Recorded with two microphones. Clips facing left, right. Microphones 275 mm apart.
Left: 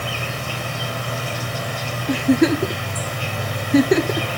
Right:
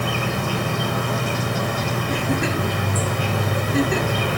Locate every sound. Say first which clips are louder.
0.0 s an insect: right 5 dB; 55° right (ahead or behind), 1.8 m
2.1 s a giggle: left 10 dB; 65° left (ahead or behind), 0.6 m